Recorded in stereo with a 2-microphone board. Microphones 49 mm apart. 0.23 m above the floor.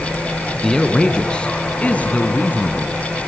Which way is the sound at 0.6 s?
10° left (ahead or behind).